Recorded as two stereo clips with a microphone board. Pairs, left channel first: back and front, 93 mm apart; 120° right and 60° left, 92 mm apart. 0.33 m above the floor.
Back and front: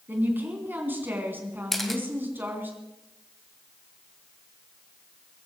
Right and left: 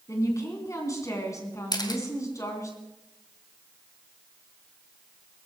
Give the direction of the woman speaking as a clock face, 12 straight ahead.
2 o'clock.